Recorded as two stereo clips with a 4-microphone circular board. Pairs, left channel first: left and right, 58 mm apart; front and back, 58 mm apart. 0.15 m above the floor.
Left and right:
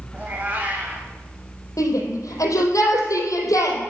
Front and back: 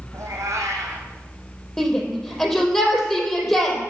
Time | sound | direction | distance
0.1 | a cat meowing | 155° right | 3 m
1.8 | a shout | 80° left | 4 m